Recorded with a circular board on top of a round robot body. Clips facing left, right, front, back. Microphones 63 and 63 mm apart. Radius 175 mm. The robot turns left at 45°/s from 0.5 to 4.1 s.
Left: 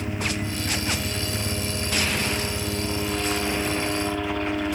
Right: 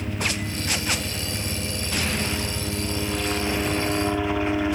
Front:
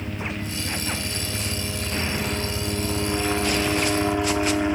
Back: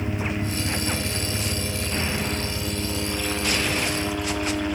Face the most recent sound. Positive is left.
turn(degrees=-20)